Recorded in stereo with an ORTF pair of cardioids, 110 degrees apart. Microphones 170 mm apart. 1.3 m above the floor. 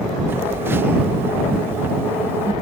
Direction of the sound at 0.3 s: 15° right.